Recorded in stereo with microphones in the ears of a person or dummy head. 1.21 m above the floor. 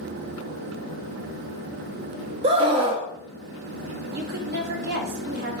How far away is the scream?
About 0.5 m.